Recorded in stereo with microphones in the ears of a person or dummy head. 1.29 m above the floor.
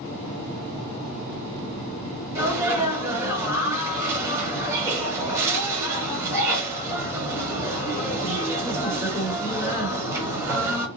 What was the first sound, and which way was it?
A sneeze, 20° right (ahead or behind).